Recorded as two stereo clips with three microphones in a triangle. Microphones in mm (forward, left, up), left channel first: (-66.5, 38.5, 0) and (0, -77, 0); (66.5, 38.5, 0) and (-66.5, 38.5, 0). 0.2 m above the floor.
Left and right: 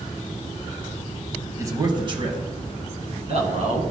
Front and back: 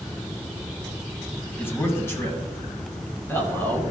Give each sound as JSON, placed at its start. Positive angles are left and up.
{"t": 1.6, "sound": "a man speaking", "azimuth_deg": -45, "distance_m": 1.0}